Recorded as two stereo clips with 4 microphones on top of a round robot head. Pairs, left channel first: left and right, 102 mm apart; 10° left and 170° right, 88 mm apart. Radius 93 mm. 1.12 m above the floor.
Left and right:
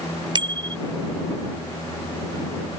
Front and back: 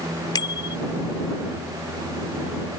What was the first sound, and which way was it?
A bicycle bell, 45° right.